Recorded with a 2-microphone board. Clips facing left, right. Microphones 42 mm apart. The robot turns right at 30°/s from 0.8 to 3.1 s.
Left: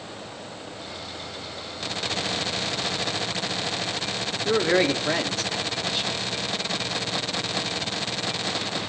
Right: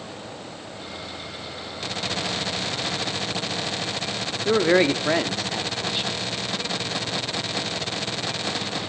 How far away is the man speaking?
About 0.7 m.